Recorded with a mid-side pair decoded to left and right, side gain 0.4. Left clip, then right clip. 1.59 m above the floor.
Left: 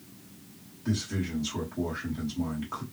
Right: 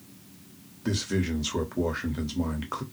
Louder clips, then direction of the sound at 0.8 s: Right 4 dB; 65° right.